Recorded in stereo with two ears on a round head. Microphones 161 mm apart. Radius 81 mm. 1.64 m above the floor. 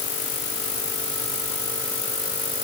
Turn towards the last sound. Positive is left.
No sound to turn to.